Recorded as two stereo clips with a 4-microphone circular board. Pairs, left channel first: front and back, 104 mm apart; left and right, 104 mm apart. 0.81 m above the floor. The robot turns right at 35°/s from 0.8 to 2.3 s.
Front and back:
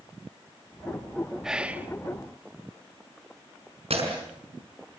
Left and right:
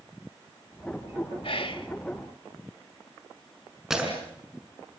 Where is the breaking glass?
175° right, 5.5 m.